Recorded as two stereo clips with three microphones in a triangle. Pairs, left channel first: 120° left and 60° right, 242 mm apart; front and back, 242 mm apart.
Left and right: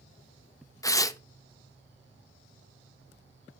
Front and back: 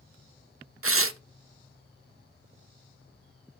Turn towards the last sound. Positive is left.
turn(degrees=-165)